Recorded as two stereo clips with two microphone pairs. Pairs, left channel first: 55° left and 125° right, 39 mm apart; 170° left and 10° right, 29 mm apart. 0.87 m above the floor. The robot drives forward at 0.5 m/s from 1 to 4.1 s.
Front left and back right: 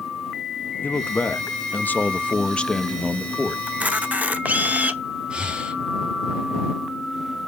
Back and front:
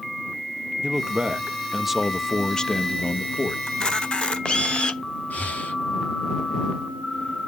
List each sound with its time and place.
0.8 s a man speaking: 40° left, 0.9 m; by 3.6 s 145° left, 0.9 m
3.7 s a camera shutter: 140° right, 0.7 m; by 5.0 s 150° right, 0.8 m
5.3 s breathing: 175° left, 1.4 m